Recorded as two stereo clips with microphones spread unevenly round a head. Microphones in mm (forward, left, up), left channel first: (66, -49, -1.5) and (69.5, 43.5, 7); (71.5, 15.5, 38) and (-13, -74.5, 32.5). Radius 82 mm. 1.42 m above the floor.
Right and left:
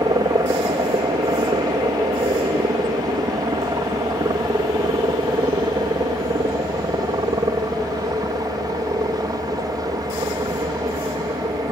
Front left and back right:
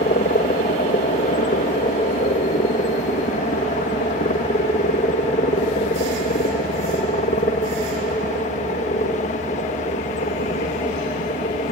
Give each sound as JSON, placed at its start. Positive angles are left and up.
{"t": 0.0, "sound": "a helicopter", "azimuth_deg": 50}